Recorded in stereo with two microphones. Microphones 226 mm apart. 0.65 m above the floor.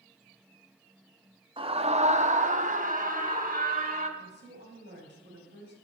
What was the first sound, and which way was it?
A scream, 25° right (ahead or behind).